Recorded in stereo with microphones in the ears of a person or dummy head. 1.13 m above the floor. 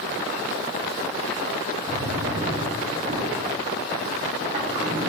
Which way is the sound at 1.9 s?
25° right (ahead or behind).